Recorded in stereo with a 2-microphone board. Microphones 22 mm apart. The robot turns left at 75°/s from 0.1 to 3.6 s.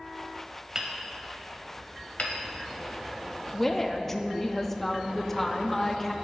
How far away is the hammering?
About 1.1 m.